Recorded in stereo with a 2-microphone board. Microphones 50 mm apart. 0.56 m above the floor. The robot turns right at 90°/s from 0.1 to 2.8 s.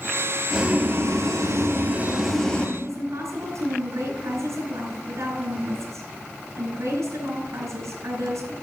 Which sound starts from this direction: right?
A woman speaking, at 2.8 s.